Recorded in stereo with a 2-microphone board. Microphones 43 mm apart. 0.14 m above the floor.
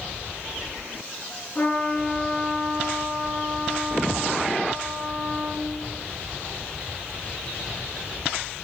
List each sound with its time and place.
1.6 s a trumpet: 35° left (ahead or behind), 1.7 m